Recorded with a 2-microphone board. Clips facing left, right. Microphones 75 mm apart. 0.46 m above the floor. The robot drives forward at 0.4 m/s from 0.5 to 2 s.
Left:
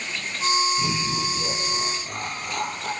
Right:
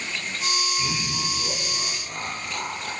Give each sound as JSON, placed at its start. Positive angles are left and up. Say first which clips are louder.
{"t": 0.8, "sound": "laughter", "louder": "left 3 dB", "side_deg": 60, "distance_m": 9.5}